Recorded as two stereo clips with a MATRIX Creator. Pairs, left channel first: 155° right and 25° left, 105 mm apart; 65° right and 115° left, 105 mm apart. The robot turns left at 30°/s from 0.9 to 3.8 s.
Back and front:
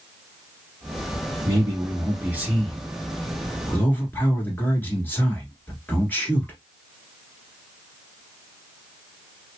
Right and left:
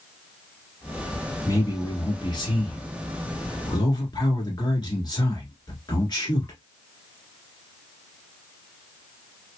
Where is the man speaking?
20° right, 1.5 m; by 6.6 s 90° right, 1.5 m.